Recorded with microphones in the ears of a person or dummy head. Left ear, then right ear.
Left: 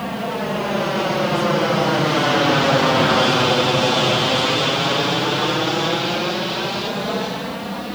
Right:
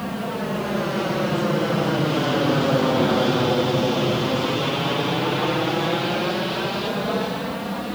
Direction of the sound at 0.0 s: 25° left (ahead or behind).